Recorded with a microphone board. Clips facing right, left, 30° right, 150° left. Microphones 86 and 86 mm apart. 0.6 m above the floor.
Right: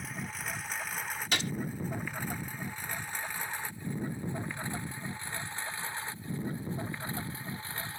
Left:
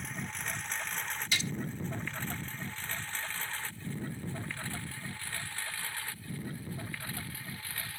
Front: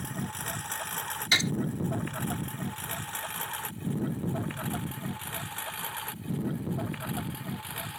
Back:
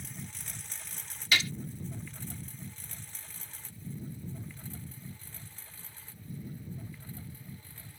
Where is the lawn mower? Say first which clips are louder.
Even, front 11 dB; 5° right; by 8.0 s 25° right.